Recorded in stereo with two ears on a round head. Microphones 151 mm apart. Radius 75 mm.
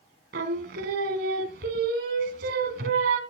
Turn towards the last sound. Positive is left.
turn(degrees=-65)  # may be behind; listen again after turning